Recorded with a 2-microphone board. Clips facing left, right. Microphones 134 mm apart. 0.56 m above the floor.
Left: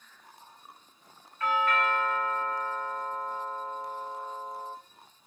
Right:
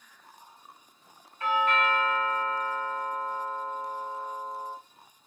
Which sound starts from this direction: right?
A doorbell, at 1.4 s.